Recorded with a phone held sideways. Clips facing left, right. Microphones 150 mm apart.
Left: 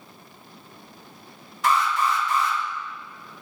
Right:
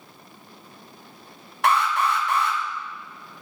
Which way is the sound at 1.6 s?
65° right (ahead or behind).